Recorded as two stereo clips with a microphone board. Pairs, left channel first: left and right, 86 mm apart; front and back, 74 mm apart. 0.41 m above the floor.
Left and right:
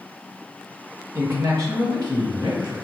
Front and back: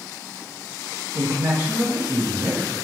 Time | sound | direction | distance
1.1 | a man speaking | 125° right | 1.0 m